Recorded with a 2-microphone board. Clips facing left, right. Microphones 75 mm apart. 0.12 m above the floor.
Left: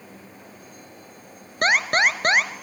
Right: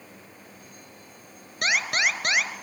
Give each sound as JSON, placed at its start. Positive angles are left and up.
{"t": 1.6, "sound": "an alarm", "side_deg": 50, "distance_m": 1.1}